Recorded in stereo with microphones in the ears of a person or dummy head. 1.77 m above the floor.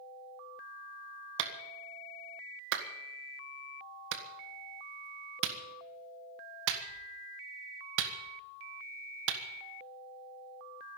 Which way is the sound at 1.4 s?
70° right (ahead or behind).